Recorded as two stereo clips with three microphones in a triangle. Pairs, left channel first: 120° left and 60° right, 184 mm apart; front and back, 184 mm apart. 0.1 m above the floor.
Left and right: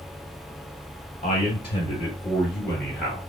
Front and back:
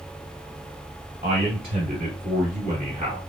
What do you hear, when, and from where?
1.2 s a man speaking: 155° left, 1.5 m; by 3.2 s 145° right, 1.8 m